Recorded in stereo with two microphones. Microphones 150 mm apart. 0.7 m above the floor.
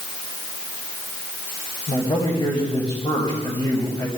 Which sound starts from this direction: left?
A man speaking, at 1.9 s.